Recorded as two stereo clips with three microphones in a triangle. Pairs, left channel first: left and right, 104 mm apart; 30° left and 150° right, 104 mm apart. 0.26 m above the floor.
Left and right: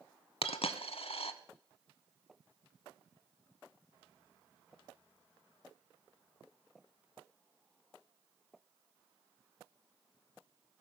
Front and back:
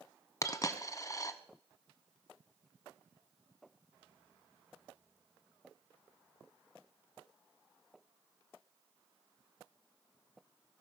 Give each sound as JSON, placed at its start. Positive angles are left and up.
{"t": 0.4, "sound": "a dropped coin", "azimuth_deg": 85, "distance_m": 0.6}